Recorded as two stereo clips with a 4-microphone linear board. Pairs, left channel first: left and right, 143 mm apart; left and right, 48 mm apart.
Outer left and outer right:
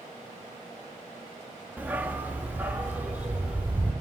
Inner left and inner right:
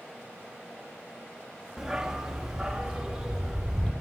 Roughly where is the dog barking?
Centre.